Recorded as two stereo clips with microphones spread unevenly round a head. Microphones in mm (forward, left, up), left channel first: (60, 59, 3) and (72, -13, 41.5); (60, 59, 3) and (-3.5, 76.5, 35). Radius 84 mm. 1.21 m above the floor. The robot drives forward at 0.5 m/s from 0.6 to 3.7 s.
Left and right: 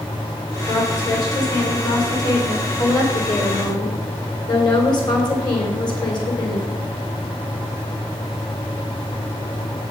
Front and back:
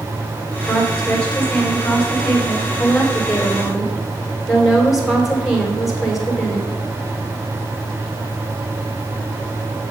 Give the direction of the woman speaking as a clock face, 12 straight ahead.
10 o'clock.